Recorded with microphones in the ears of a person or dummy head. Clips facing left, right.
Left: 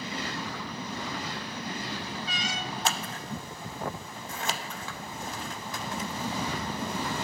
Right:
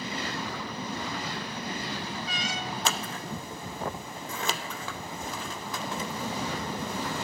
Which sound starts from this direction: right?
Scissors, at 2.9 s.